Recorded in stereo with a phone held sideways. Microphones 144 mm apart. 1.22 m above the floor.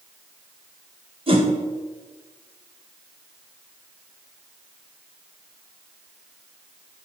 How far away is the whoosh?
About 1.4 m.